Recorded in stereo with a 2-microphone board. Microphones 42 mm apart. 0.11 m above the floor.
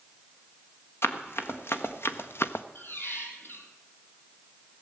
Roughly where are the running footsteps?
Left.